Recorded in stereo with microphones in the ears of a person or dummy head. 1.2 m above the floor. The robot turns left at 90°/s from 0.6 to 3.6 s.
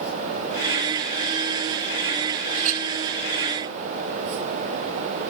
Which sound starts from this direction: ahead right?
A clink, at 2.5 s.